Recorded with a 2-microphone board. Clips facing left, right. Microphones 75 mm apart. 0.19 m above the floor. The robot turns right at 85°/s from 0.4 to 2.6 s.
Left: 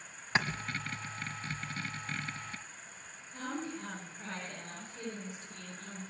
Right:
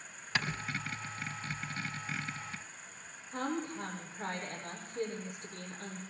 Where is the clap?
25° left (ahead or behind), 1.3 m.